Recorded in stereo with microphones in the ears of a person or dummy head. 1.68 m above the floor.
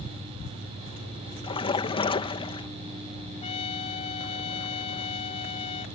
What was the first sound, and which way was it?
A splash, 25° left (ahead or behind).